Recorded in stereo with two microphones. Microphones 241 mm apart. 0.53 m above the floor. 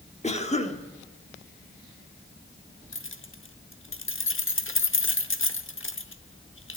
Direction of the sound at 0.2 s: 30° left (ahead or behind).